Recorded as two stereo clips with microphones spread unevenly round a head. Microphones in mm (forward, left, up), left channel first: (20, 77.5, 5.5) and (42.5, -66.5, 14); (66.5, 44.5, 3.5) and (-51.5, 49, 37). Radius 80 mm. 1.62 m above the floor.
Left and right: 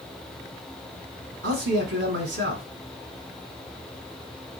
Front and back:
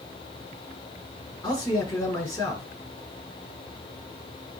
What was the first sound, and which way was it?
A man speaking, 80° right.